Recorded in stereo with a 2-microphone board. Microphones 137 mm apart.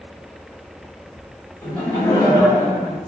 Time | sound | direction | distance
1.6 | laughter | 10° left (ahead or behind) | 1.2 m